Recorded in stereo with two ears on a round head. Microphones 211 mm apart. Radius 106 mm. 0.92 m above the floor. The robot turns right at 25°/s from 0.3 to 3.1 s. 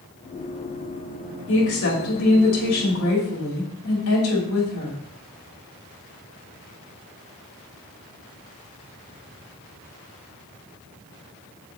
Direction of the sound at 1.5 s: 60° left.